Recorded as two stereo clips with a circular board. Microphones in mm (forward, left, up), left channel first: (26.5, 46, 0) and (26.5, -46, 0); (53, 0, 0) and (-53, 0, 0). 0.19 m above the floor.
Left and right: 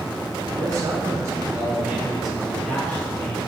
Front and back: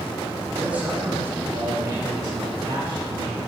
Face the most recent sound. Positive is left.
turn(degrees=150)